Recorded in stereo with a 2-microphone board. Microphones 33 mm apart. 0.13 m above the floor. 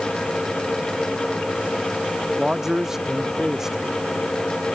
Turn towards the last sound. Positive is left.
turn(degrees=-15)  # may be behind; listen again after turning